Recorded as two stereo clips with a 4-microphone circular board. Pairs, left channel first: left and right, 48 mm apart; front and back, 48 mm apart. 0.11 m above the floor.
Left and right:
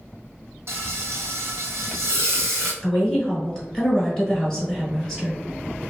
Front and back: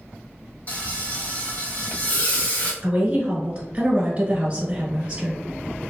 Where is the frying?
60° right, 1.2 m.